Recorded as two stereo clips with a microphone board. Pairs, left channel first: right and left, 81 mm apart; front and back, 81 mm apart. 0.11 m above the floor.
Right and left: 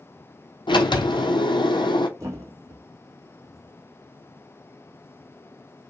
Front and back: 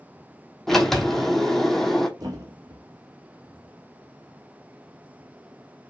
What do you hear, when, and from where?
0.7 s a sliding door: 85° right, 0.6 m
2.2 s a thud: 145° left, 0.9 m